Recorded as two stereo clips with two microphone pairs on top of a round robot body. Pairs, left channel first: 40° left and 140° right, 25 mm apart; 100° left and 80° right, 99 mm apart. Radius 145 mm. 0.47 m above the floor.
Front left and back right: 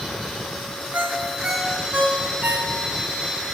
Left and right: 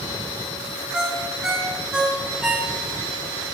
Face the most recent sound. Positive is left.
turn(degrees=-160)